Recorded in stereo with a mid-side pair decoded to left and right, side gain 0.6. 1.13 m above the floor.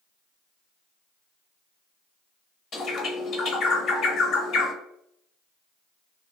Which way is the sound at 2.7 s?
45° left.